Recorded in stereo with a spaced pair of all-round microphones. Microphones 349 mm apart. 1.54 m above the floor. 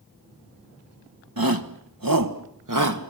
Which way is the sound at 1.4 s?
85° right.